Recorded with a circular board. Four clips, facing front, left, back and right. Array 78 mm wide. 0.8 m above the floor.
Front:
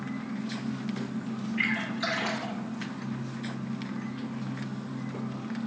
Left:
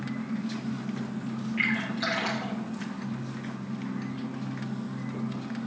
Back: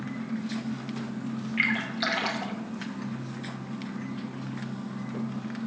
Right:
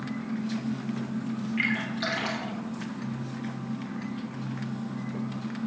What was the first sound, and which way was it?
A splash, 175° right.